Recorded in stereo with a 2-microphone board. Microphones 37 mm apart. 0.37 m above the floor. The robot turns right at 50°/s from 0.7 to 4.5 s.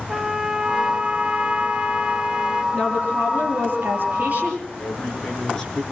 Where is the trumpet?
10° right (ahead or behind), 1.5 m; by 2.6 s 25° right (ahead or behind), 1.5 m.